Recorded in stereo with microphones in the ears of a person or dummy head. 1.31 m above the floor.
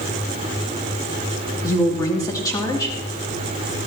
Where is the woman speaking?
20° left (ahead or behind), 2.5 m.